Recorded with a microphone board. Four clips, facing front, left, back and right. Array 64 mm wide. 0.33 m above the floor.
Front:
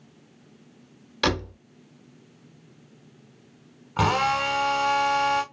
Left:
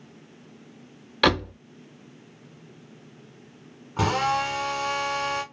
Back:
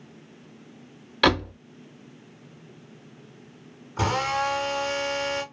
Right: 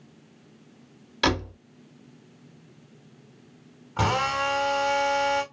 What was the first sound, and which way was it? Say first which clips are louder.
A door slam: left 3 dB, back 4 dB; 135° left.